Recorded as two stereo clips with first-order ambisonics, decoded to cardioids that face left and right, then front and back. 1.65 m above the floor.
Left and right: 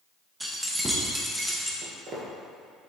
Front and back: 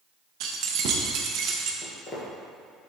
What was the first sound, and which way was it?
Keys jangling, 175° right.